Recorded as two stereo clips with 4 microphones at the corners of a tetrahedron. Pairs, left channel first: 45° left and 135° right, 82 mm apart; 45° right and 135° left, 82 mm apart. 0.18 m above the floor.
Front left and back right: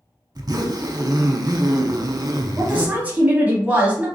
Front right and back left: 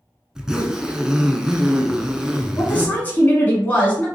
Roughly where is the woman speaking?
Right.